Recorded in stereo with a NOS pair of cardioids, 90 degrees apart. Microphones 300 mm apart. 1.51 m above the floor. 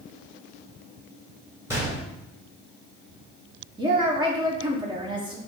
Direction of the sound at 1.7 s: 10° right.